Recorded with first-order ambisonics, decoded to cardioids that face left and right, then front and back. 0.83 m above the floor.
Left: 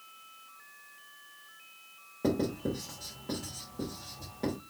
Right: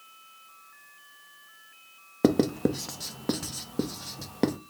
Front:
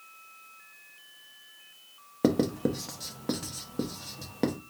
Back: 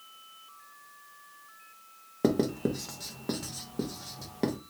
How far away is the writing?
About 0.6 m.